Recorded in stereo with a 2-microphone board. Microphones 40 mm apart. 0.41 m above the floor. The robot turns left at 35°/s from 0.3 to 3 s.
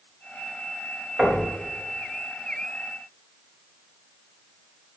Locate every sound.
1.2 s knocking: 25° right (ahead or behind), 3 m; by 1.4 s 15° right (ahead or behind), 3 m